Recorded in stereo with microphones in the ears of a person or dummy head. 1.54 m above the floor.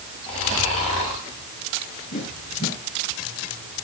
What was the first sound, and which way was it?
Snoring, 35° left (ahead or behind).